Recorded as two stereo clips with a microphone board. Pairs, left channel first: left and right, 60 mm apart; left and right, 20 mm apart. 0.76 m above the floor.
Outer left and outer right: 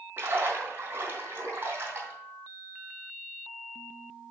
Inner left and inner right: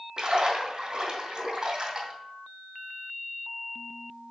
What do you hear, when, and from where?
0.2 s a splash: 40° right (ahead or behind), 2.5 m